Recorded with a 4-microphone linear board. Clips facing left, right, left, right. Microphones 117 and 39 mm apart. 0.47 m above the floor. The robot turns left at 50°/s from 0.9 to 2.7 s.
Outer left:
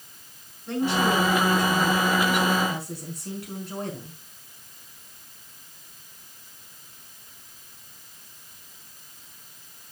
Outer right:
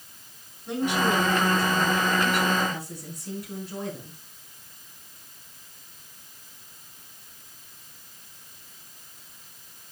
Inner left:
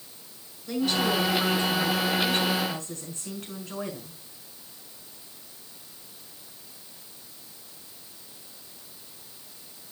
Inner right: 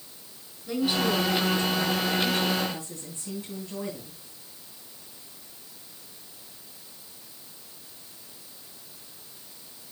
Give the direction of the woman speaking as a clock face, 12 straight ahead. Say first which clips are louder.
Outer left 1 dB, even; 5 o'clock.